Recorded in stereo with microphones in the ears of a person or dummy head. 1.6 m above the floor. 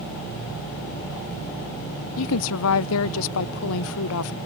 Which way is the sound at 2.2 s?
70° left (ahead or behind).